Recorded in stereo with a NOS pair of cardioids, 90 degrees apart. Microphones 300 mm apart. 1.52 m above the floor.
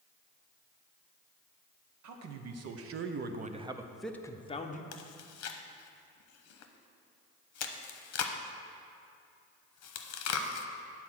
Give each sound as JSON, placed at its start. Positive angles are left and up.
{"t": 2.0, "sound": "a man speaking", "azimuth_deg": -70, "distance_m": 1.1}
{"t": 4.9, "sound": "chewing", "azimuth_deg": 60, "distance_m": 0.9}